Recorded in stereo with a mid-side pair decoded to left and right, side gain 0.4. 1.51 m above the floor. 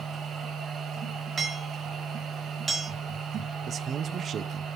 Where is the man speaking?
60° right, 0.6 m.